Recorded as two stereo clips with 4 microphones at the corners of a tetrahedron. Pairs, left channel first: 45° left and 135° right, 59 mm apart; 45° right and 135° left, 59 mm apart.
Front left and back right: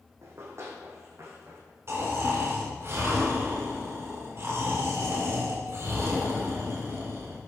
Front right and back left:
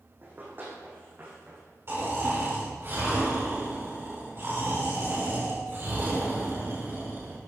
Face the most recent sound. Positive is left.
turn(degrees=-175)